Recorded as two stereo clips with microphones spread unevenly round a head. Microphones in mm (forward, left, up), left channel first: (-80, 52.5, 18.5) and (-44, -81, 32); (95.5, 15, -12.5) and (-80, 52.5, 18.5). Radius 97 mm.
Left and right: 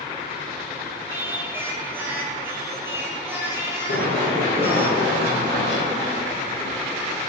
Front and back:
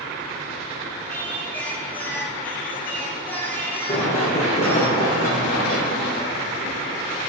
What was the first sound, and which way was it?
Singing, 105° right.